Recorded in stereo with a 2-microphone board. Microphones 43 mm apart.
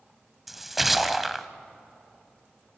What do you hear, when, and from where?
0.5 s a splash: 5° right (ahead or behind), 0.6 m